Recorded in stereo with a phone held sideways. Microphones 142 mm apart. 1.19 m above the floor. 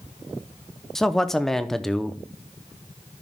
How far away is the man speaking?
About 0.6 m.